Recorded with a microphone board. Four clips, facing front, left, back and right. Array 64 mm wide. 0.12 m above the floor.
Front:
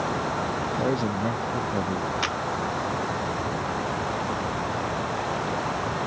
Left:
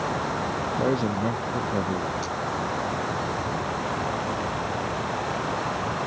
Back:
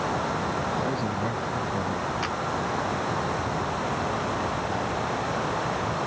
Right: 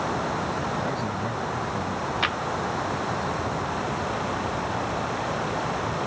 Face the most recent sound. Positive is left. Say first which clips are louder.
# right 4 dB, front 1 dB
turn(degrees=-80)